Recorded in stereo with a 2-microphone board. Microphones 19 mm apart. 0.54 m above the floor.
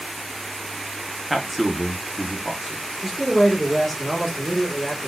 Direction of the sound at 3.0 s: 5° right (ahead or behind).